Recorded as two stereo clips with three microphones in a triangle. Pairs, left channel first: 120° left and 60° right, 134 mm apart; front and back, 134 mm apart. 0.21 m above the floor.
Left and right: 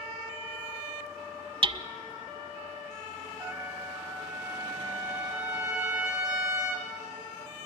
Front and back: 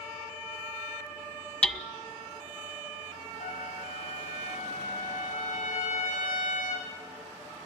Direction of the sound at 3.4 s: 5° left.